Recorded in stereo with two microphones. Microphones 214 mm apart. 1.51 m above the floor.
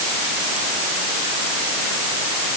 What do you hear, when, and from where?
Only background noise.